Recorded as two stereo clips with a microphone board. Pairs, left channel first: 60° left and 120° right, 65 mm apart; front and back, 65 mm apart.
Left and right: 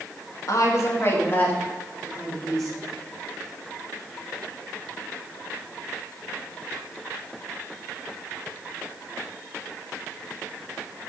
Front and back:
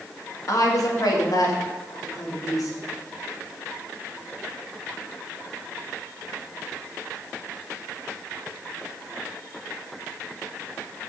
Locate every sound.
0.5 s a woman speaking: 30° left, 2.0 m; by 2.8 s 30° right, 3.5 m